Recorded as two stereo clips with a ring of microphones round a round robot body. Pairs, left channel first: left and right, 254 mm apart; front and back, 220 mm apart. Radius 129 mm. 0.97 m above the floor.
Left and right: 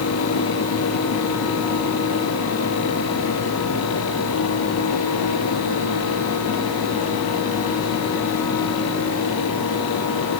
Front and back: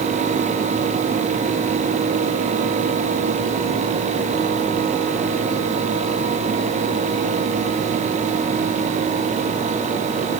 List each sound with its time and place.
Only background noise.